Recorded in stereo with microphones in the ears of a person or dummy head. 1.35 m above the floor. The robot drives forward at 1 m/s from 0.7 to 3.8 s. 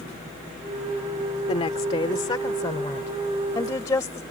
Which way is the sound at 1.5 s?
25° left (ahead or behind).